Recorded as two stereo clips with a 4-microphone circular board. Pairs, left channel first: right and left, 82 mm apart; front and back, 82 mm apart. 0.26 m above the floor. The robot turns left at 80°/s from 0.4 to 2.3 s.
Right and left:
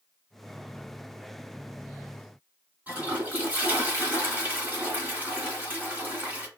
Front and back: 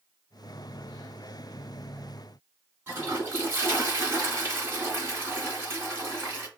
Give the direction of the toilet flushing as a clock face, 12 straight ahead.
7 o'clock.